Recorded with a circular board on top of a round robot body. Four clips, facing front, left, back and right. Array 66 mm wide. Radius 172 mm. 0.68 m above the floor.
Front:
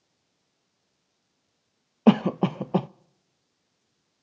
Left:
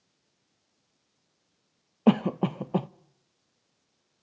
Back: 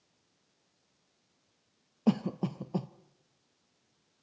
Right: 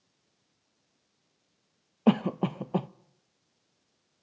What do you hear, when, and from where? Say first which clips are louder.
2.1 s a cough: left 2 dB, front 10 dB; 5° left, 0.6 m